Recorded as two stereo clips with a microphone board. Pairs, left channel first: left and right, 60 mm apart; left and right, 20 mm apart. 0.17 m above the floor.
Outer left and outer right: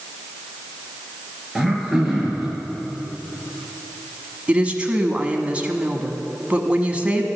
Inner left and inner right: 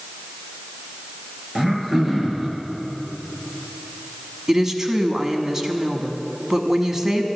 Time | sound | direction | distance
1.6 | throat clearing | 5° right (ahead or behind) | 2.5 m
4.5 | a woman speaking | 20° right (ahead or behind) | 1.1 m